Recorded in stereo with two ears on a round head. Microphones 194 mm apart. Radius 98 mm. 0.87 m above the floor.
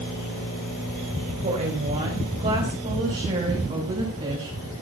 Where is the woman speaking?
35° right (ahead or behind), 4.5 m; by 4.7 s 25° right (ahead or behind), 6 m.